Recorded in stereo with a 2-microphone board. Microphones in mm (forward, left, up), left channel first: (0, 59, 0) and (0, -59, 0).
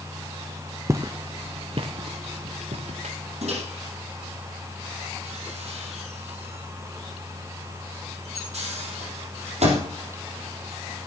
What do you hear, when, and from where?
0.9 s footsteps: 25° right (ahead or behind), 0.7 m; by 3.1 s 75° right (ahead or behind), 1.7 m
3.4 s a microwave: 65° right (ahead or behind), 4.5 m